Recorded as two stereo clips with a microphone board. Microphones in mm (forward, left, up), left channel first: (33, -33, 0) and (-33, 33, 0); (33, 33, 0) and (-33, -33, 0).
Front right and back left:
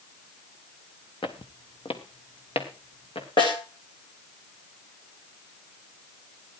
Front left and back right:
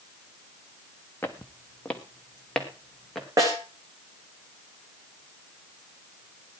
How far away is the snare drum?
About 6.5 m.